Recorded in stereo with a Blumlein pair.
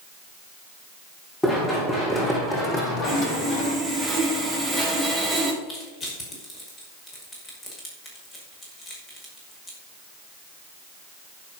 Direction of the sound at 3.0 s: 10° right.